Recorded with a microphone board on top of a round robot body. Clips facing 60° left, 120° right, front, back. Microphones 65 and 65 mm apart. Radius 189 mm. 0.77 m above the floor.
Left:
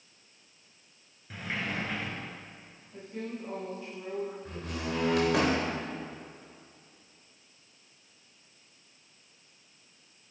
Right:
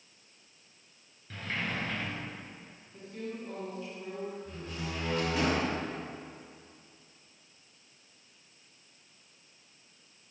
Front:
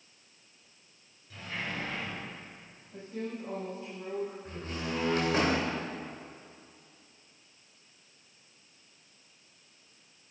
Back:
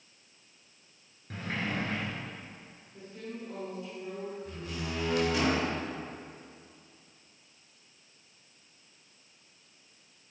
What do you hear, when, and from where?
1.3 s a sliding door: 140° left, 3 m
2.9 s a woman speaking: straight ahead, 6.5 m
4.5 s a door slam: 50° left, 3 m